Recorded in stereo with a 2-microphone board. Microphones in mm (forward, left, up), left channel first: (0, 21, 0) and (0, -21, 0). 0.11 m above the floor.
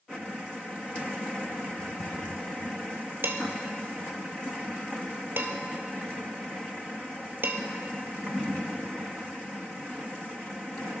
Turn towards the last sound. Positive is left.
turn(degrees=-60)  # may be behind; listen again after turning